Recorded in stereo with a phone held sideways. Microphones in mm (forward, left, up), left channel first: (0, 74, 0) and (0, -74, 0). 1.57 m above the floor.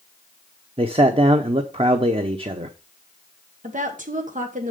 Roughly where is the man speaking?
Right.